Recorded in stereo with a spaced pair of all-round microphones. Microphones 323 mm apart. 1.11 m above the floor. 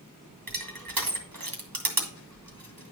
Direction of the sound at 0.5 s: 75° right (ahead or behind).